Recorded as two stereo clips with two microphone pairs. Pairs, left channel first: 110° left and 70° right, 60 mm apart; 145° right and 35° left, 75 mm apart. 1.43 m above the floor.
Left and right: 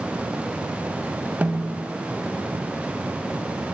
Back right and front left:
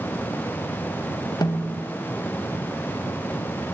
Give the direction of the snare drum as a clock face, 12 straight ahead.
4 o'clock.